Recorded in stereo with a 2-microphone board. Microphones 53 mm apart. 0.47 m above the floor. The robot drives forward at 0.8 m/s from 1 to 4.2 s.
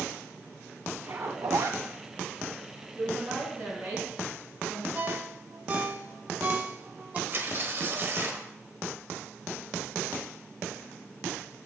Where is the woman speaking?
30° right (ahead or behind), 5.5 m; by 4.8 s 35° right (ahead or behind), 4.5 m.